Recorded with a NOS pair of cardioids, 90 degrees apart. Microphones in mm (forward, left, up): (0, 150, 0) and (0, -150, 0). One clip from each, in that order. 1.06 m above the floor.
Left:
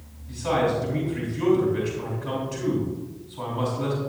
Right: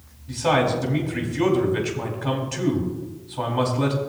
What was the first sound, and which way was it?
A man speaking, 70° right.